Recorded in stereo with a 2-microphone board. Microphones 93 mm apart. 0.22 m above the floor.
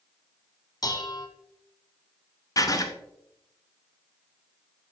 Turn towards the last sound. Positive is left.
turn(degrees=40)  # may be behind; listen again after turning